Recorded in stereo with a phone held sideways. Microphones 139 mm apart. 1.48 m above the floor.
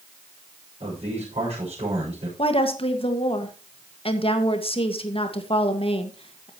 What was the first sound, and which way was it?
A man speaking, 55° right (ahead or behind).